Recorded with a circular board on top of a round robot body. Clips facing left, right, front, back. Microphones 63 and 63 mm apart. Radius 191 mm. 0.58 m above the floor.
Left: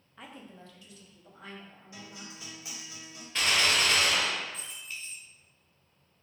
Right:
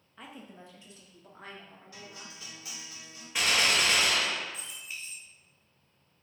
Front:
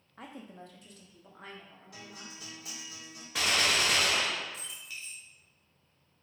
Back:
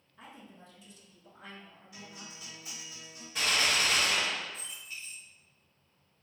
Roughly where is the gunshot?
Ahead.